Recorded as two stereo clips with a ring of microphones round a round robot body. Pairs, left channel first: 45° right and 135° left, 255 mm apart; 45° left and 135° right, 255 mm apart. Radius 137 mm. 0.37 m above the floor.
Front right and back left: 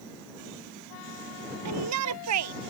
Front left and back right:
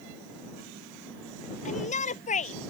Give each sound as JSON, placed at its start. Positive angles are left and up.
{"t": 1.6, "sound": "a shout", "azimuth_deg": 110}